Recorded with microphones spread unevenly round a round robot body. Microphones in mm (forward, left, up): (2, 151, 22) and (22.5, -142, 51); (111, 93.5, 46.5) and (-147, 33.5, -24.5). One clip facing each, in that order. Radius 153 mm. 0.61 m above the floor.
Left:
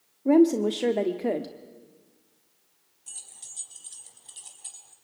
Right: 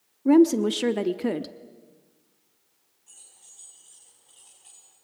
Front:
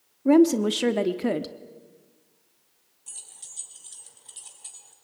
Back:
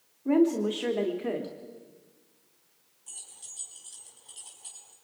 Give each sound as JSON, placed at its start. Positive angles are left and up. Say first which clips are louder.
{"t": 0.2, "sound": "a woman speaking", "louder": "right 2 dB, front 6 dB", "azimuth_deg": -25, "distance_m": 1.0}
{"t": 3.1, "sound": "keys jangling", "louder": "left 4 dB, front 1 dB", "azimuth_deg": 70, "distance_m": 3.5}